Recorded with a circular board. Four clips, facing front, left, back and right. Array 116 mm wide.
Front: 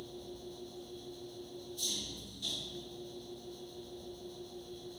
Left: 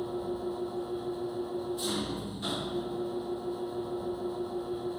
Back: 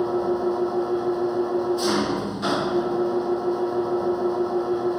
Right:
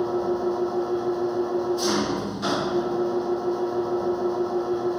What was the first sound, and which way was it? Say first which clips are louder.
An engine running: right 10 dB, back 25 dB; 150° right.